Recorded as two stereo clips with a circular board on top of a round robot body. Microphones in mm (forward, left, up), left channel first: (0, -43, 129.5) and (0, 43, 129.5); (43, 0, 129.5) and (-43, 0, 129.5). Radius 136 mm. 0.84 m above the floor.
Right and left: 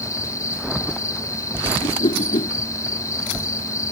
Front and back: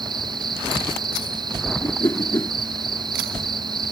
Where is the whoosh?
65° right.